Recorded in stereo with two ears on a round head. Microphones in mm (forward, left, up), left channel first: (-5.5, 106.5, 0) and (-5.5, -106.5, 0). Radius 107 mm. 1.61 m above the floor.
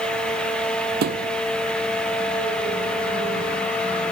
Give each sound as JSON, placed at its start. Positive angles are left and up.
{"t": 1.0, "sound": "a thud", "side_deg": -45}